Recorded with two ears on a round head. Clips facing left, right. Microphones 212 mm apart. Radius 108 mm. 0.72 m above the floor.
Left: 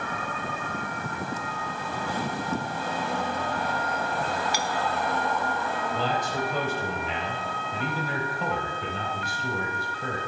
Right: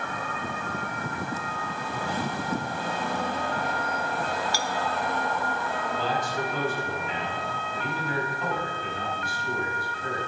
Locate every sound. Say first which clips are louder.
4.5 s a clink: left 1 dB; 15° left (ahead or behind), 1.0 m
5.9 s a man speaking: even; 65° left (ahead or behind), 4.5 m